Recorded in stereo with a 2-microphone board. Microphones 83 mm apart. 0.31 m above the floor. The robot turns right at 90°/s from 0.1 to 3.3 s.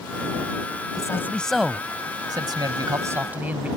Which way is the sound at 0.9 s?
125° left.